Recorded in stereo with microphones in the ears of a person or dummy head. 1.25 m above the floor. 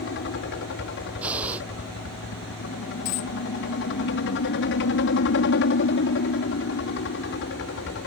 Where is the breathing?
10° right (ahead or behind).